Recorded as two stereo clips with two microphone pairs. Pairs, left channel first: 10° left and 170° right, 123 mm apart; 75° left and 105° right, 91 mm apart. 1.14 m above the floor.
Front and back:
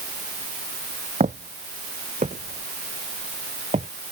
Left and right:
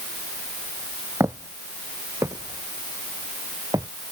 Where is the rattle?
I don't hear a rattle.